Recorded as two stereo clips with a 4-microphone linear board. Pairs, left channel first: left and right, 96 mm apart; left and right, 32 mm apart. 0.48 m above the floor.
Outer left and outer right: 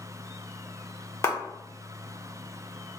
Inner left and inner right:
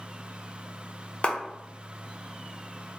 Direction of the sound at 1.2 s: 30° left (ahead or behind).